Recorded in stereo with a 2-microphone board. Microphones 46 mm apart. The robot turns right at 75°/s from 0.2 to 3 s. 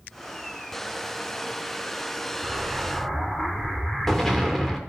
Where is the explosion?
35° right, 1.7 m; by 4.8 s 5° left, 1.7 m.